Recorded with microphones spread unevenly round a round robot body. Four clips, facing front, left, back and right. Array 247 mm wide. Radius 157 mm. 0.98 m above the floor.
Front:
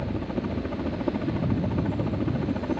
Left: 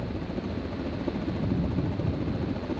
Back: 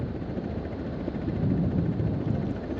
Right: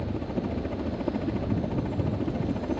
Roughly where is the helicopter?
Ahead right.